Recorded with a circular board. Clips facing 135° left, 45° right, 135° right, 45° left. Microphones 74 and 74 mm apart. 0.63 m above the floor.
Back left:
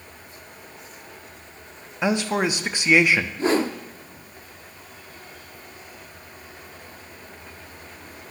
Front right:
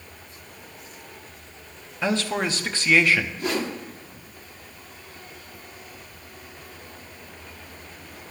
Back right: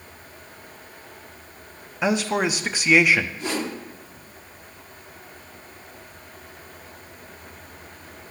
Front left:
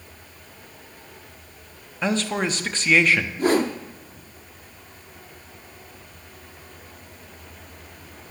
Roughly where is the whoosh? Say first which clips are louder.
Back left 6 dB, front left 8 dB; left.